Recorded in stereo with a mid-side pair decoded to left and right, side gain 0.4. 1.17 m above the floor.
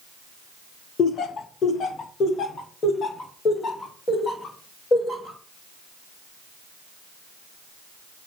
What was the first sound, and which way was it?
Laughter, 65° left.